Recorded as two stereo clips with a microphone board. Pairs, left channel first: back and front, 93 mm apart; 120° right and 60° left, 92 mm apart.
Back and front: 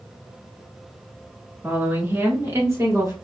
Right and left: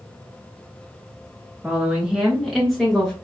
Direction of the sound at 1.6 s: 25° left.